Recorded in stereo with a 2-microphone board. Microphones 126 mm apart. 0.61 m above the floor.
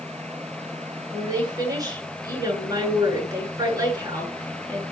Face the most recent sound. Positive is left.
turn(degrees=-30)  # may be behind; listen again after turning